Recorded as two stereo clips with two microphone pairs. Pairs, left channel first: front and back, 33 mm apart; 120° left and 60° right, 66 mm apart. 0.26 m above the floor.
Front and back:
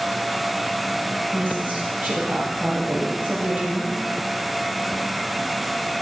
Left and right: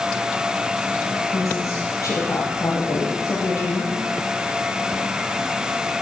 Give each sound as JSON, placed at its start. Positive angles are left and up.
{"t": 1.3, "sound": "a woman speaking", "azimuth_deg": 155, "distance_m": 8.5}